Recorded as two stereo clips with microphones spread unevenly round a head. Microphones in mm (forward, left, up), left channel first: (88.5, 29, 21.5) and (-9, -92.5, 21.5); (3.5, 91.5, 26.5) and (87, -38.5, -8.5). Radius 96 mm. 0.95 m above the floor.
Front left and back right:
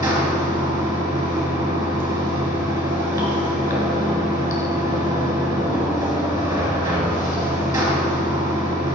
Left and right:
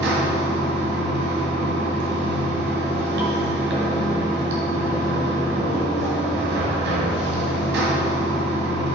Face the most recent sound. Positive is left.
turn(degrees=-55)